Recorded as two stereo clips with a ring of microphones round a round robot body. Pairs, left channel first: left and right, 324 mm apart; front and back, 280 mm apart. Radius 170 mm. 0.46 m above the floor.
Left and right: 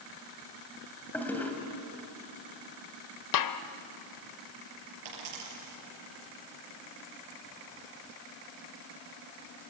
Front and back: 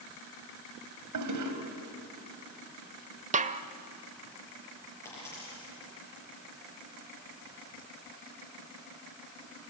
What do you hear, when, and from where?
1.1 s a toilet flushing: 175° left, 2.5 m
3.3 s a snare drum: 115° left, 1.0 m
5.0 s a dropped coin: 85° right, 6 m